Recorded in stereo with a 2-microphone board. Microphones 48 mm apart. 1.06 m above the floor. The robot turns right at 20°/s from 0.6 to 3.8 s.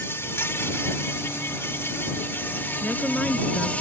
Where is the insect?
80° left; by 3.8 s 145° left.